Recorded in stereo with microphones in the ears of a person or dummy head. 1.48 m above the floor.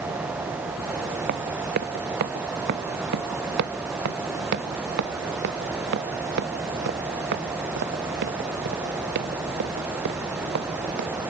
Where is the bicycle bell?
I don't hear a bicycle bell.